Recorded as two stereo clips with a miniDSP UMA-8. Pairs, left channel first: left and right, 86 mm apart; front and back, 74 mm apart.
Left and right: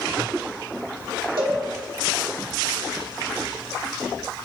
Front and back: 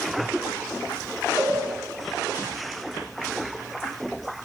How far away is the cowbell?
About 1.0 m.